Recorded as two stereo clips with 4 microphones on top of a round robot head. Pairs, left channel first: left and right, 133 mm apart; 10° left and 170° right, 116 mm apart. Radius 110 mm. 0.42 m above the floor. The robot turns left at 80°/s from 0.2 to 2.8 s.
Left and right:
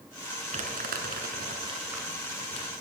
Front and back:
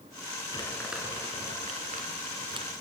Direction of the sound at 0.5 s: 55° right.